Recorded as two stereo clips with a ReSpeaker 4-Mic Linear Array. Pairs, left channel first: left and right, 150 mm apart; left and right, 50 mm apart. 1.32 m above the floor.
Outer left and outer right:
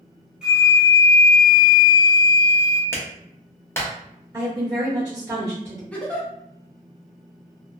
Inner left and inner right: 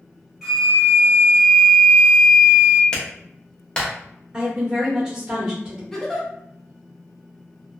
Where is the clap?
15° left (ahead or behind), 0.7 m.